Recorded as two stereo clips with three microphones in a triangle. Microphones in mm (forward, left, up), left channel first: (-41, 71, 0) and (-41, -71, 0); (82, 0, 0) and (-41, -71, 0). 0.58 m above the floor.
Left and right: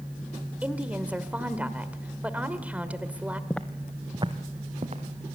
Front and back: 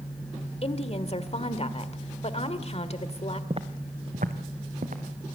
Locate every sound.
0.6 s a woman speaking: 10° right, 1.7 m
3.5 s footsteps: 165° left, 1.0 m; by 5.3 s 125° right, 3 m